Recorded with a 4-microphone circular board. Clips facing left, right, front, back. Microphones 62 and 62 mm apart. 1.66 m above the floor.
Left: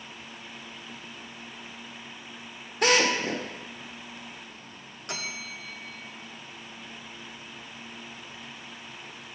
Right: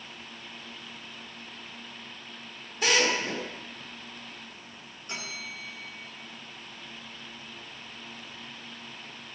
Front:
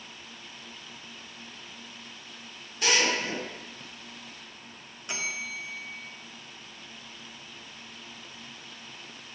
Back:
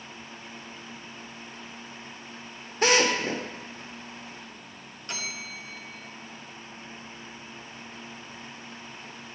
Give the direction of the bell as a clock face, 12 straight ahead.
9 o'clock.